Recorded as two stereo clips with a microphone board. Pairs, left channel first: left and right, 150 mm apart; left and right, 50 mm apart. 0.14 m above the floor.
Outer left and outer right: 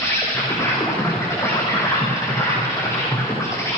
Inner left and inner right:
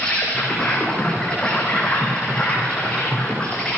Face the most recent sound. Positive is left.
turn(degrees=20)  # may be behind; listen again after turning